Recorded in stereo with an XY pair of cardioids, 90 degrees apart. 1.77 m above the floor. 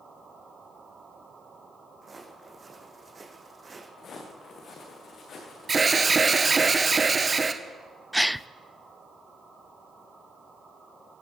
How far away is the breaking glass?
No breaking glass in this recording.